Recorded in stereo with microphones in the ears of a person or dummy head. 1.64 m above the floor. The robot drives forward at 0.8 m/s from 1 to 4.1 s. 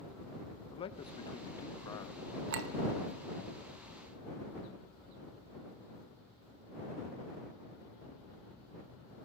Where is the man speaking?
20° left (ahead or behind), 1.3 m; by 2.3 s 10° left (ahead or behind), 2 m.